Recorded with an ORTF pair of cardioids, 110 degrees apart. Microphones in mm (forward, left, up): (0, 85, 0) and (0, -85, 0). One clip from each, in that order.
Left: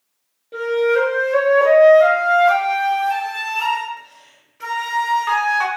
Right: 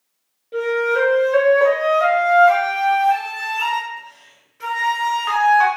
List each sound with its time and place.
0.5 s a flute: straight ahead, 0.7 m